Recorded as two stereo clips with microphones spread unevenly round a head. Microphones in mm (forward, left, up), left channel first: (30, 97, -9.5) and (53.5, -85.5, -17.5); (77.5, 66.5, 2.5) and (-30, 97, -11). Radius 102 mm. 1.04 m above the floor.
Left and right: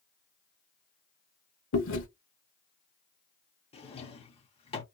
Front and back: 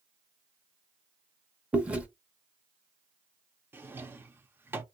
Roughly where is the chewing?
Left.